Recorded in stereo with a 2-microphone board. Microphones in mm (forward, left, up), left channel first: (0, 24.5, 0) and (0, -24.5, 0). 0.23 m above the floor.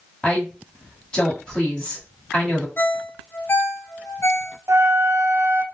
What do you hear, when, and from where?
0.2 s a woman speaking: 15° left (ahead or behind), 1.6 m
2.8 s a ringtone: 50° left (ahead or behind), 0.6 m
4.7 s a flute: 75° right (ahead or behind), 0.6 m